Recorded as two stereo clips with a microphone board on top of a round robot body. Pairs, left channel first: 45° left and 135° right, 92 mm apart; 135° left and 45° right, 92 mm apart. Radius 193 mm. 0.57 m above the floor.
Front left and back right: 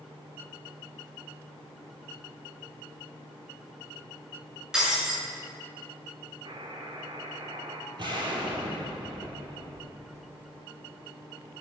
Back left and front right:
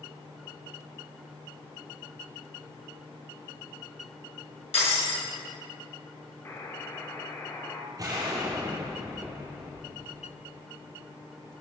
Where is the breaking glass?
140° left, 6 m.